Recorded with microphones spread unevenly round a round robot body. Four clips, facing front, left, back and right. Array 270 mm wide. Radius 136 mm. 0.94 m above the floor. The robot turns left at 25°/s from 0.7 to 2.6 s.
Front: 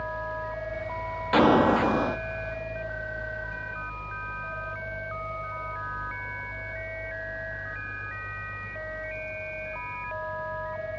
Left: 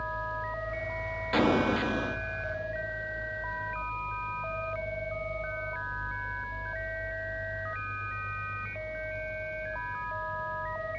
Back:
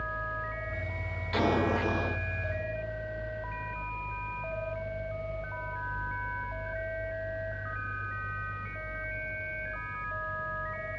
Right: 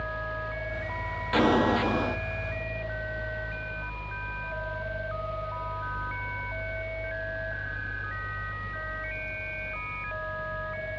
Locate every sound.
1.3 s an explosion: 5° left, 1.8 m; by 2.2 s 15° right, 1.8 m